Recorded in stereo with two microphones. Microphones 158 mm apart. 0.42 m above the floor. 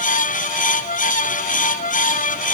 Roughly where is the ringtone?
I don't hear a ringtone.